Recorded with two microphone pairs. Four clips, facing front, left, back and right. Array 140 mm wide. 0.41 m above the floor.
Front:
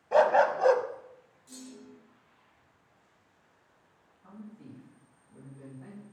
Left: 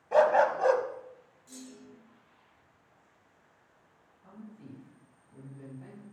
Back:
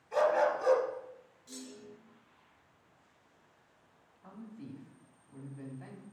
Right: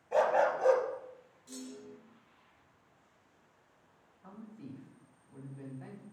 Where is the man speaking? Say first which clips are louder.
Even, even; 135° right, 3 m.